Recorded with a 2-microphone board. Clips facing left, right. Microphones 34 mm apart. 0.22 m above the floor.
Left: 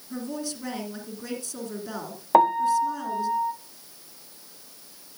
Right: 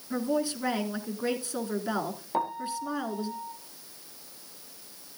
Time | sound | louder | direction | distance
0.1 | a woman speaking | right 5 dB | 25° right (ahead or behind) | 2 m
2.3 | a piano | left 13 dB | 50° left (ahead or behind) | 0.7 m